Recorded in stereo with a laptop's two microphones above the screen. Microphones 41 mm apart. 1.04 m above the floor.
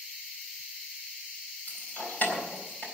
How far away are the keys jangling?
About 4 m.